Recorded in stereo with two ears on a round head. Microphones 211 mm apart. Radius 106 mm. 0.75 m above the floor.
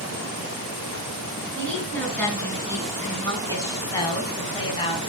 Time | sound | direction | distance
1.6 | a woman speaking | 5° left (ahead or behind) | 7 m